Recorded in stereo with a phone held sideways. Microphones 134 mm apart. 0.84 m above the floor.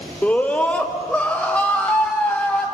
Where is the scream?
10° left (ahead or behind), 1.9 m.